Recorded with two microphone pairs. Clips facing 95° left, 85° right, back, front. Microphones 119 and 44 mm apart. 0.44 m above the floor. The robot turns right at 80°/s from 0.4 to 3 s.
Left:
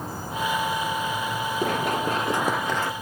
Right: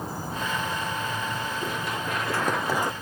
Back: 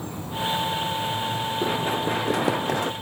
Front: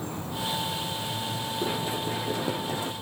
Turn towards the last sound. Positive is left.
turn(degrees=-145)